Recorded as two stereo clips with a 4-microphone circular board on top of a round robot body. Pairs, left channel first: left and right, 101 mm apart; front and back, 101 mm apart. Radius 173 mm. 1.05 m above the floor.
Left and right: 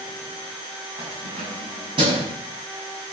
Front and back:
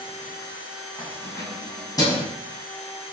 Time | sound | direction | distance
1.0 | keys jangling | 60° right | 6.5 m